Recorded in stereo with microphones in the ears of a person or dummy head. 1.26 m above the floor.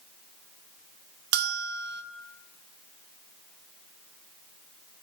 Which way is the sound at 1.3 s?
65° right (ahead or behind).